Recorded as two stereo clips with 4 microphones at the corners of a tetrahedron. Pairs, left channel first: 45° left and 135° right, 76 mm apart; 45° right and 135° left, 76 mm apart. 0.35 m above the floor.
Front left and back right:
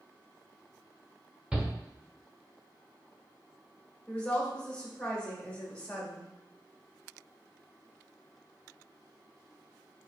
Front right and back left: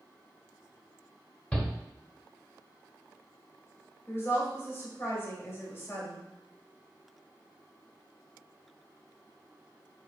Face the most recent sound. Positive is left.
turn(degrees=-20)